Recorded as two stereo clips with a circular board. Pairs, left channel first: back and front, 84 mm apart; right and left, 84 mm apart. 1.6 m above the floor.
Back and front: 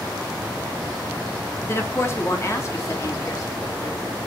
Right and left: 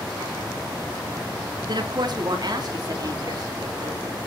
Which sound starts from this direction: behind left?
A woman speaking, at 1.6 s.